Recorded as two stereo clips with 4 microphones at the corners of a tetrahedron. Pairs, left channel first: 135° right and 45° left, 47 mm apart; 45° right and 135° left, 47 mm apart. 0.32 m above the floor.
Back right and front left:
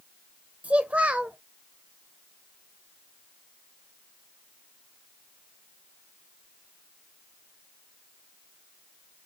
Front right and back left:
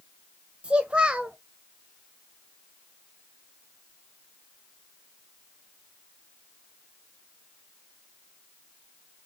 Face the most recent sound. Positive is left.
turn(degrees=85)